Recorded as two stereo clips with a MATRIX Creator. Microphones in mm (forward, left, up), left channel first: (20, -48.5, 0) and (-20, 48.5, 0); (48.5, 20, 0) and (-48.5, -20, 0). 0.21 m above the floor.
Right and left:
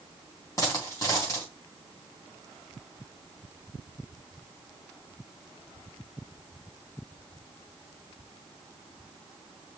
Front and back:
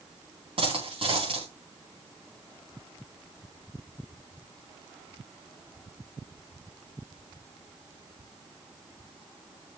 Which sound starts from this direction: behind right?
A dropped coin, at 0.6 s.